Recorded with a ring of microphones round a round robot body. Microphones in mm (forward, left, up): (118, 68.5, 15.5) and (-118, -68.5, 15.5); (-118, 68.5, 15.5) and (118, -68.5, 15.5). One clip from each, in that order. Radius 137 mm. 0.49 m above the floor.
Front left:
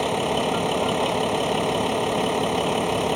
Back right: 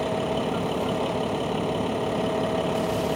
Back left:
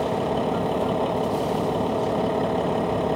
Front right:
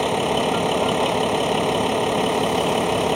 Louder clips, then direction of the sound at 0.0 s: Front left 3 dB, front right 4 dB; 20° right.